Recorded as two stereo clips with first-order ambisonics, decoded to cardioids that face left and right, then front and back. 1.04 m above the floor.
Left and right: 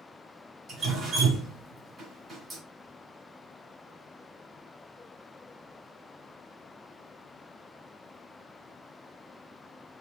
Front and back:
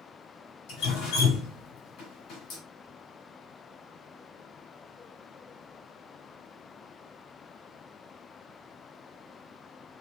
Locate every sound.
0.7 s dripping: 25° right, 1.9 m